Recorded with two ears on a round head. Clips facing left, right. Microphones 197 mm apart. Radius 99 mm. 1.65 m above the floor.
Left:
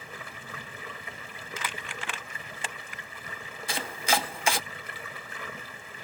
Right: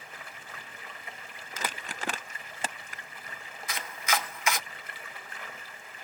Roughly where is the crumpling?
Right.